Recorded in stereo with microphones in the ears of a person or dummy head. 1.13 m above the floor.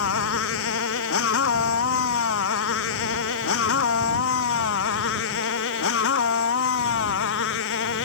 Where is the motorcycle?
75° left (ahead or behind); by 8.1 s 70° left (ahead or behind).